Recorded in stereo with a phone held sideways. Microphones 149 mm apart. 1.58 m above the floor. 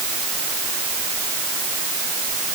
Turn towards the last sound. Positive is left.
No sound to turn to.